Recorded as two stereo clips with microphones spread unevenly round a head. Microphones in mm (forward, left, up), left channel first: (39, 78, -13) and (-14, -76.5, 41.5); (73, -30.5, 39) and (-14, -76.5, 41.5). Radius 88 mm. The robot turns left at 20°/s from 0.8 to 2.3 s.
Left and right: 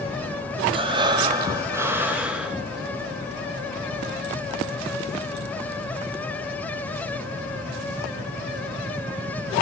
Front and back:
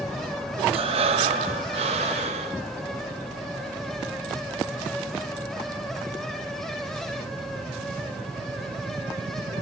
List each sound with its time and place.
0.7 s breathing: 150° right, 1.5 m; by 2.6 s straight behind, 1.5 m